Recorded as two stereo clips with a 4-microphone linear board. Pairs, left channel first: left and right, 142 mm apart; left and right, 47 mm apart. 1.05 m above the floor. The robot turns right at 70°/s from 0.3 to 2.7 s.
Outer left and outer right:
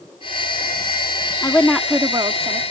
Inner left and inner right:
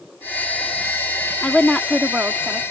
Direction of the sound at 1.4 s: 155° left.